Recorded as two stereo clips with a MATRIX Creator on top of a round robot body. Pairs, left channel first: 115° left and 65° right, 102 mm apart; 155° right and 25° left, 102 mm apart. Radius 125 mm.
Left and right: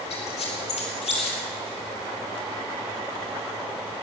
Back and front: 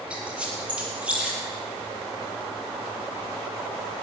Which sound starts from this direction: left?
A squeak, at 0.1 s.